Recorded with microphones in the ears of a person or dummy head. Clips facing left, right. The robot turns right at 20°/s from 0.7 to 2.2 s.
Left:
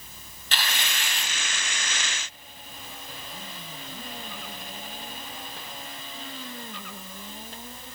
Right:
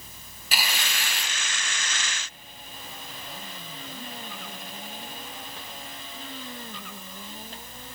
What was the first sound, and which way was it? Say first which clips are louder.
Tearing paper: even; 10° right (ahead or behind).